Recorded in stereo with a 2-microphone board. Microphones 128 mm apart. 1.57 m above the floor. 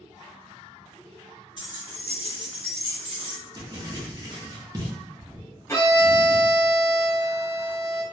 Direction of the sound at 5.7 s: 20° left (ahead or behind).